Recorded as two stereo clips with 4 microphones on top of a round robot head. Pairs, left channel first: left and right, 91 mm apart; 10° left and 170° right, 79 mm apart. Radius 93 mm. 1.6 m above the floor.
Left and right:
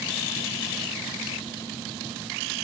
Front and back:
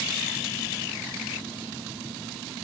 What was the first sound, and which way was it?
Only background noise.